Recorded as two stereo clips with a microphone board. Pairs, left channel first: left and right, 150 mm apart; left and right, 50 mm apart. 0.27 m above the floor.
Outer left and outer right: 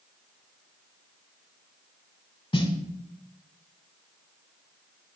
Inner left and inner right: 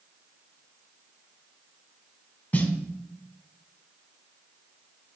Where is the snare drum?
35° left (ahead or behind), 0.5 m.